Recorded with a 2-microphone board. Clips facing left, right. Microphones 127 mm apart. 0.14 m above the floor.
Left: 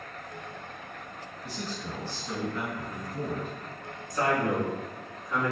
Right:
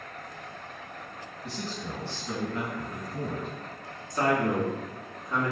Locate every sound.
1.4 s a man speaking: 30° right (ahead or behind), 1.7 m
4.1 s a man speaking: 25° right (ahead or behind), 1.1 m